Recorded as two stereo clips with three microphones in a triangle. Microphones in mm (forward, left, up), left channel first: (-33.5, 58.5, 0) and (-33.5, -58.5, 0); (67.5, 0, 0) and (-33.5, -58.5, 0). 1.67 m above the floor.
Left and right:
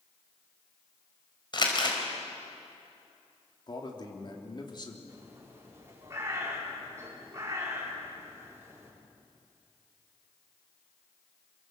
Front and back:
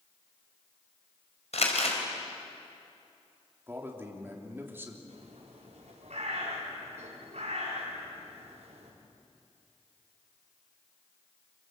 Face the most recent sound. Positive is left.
turn(degrees=-155)